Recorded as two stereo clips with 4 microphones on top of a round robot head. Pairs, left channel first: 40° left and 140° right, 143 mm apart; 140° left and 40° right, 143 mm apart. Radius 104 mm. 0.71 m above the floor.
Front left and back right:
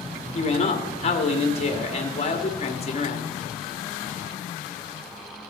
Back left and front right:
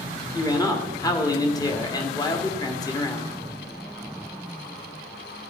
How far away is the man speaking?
About 2 m.